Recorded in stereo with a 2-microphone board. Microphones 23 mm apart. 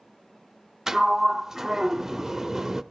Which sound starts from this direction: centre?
A sliding door, at 0.9 s.